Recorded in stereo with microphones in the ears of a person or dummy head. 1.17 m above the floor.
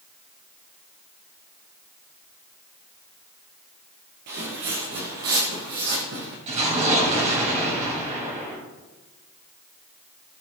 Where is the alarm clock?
I don't hear an alarm clock.